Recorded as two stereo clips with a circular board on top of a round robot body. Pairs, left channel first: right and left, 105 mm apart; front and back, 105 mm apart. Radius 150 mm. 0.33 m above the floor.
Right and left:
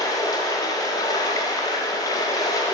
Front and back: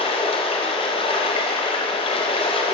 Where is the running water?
35° right, 0.8 m.